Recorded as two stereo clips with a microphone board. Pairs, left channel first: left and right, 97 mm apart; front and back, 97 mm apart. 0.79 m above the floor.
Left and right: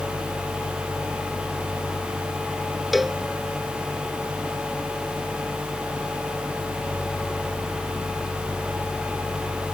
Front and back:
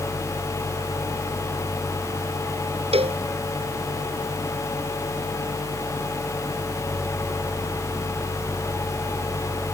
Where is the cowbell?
Straight behind.